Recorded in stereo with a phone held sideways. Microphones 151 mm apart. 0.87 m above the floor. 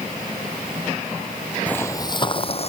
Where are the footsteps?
10° left (ahead or behind); by 2.7 s 45° left (ahead or behind).